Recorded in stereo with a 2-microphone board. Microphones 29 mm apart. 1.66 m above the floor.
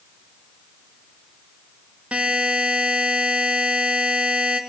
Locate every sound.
2.1 s a buzzer: 45° right (ahead or behind), 2.0 m